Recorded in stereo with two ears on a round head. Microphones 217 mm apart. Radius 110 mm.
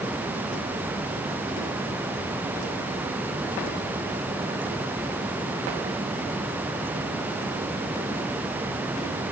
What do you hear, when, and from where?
Only background noise.